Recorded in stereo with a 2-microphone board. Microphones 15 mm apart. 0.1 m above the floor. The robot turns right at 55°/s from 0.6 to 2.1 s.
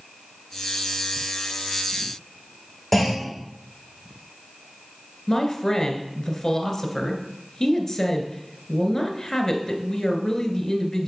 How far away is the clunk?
About 5 m.